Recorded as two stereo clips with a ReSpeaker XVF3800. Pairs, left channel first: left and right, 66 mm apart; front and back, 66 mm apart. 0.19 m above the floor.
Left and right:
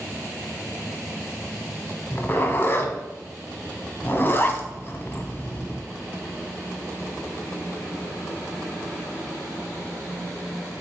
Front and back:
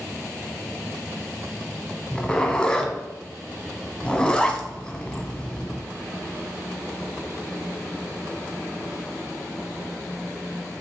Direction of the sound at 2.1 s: 65° left.